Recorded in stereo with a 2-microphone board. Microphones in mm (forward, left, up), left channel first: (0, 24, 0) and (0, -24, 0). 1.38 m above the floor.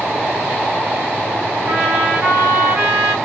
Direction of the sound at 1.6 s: 60° right (ahead or behind).